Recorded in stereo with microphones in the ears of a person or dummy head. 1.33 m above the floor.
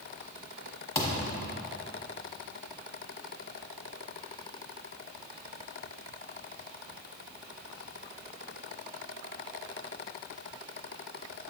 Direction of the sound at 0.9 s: 15° left (ahead or behind).